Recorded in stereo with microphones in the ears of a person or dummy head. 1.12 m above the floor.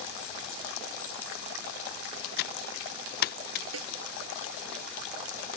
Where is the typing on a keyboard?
50° left (ahead or behind).